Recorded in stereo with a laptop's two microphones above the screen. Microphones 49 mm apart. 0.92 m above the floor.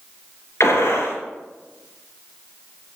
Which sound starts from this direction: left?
A gunshot, at 0.6 s.